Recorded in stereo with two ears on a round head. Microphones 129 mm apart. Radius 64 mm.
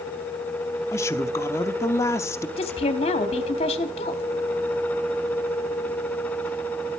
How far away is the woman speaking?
About 1.5 m.